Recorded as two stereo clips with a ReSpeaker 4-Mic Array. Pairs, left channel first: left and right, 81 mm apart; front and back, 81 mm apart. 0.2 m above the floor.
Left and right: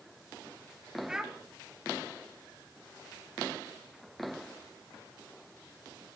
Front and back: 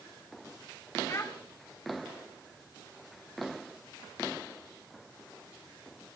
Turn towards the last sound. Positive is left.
turn(degrees=-15)